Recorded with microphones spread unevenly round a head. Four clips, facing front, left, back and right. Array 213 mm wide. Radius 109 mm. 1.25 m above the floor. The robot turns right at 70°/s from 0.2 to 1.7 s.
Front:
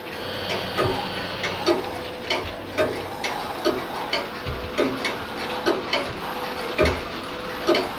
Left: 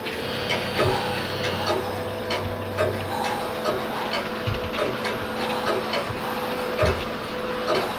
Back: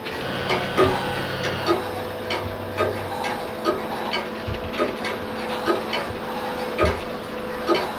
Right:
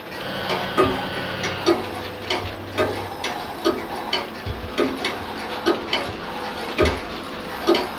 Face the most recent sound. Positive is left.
turn(degrees=-60)